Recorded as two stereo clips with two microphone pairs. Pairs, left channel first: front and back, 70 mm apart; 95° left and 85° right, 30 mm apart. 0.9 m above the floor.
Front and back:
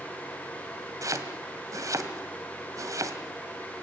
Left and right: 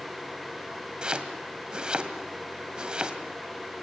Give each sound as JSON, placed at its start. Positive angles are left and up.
{"t": 1.0, "sound": "chopping", "azimuth_deg": -145, "distance_m": 2.0}